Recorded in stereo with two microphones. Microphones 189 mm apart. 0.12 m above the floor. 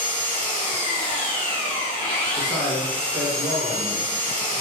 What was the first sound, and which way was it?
An engine running, 5° left (ahead or behind).